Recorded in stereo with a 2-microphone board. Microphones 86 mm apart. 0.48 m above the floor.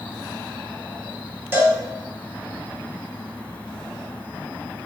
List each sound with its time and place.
1.5 s a cowbell: 25° right (ahead or behind), 1.0 m